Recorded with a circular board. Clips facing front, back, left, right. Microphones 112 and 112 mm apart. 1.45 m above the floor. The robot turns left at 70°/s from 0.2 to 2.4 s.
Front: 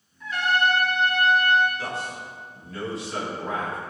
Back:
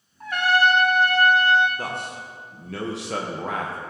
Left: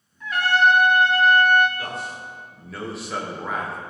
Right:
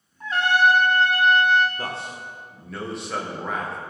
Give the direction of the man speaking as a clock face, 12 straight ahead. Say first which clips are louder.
Back 1 dB, even; 5 o'clock.